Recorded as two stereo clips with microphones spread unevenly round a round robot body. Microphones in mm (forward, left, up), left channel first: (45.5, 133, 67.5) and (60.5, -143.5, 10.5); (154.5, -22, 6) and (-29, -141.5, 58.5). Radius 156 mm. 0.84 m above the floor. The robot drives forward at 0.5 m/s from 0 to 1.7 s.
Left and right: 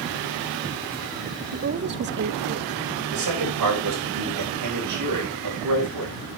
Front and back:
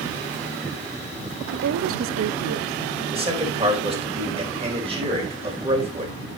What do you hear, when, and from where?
1.5 s a woman speaking: 110° right, 0.6 m; by 2.8 s 120° right, 0.6 m
3.1 s a man speaking: 80° right, 5 m